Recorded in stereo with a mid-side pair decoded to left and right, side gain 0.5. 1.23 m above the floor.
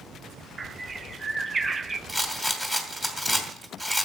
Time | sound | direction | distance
0.6 | a bird | 25° right | 0.6 m
2.1 | a rattle | 10° right | 2.5 m